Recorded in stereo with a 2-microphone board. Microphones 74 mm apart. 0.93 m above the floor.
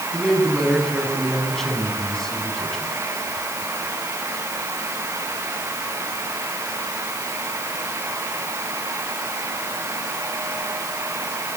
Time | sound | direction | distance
0.1 | a man speaking | 5° left (ahead or behind) | 7 m